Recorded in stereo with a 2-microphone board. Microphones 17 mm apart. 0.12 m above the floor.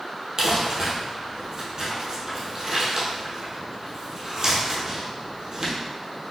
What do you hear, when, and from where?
0.4 s crumpling: 35° right (ahead or behind), 1.2 m